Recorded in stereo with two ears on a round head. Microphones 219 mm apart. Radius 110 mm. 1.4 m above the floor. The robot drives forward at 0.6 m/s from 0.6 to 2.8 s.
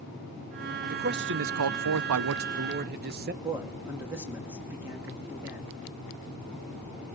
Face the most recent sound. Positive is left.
turn(degrees=-10)  # may be behind; listen again after turning